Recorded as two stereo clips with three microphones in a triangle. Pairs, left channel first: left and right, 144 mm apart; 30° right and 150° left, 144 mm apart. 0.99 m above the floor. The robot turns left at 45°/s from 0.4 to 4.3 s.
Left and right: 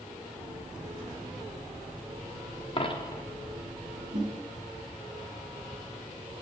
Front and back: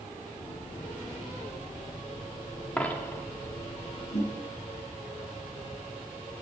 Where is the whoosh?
65° right, 1.8 m; by 4.3 s 75° right, 1.8 m.